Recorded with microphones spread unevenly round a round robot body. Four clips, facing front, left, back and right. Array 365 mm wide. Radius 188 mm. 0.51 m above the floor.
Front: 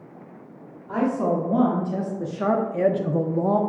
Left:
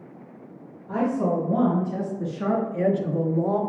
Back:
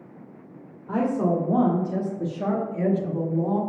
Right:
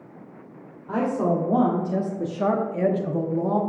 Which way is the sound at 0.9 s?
150° right.